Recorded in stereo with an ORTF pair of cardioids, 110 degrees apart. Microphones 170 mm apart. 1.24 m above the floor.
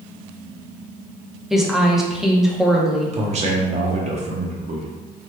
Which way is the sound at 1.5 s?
Straight ahead.